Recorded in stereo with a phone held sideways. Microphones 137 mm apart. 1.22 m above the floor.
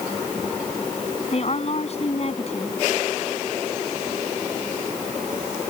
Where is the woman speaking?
50° left (ahead or behind).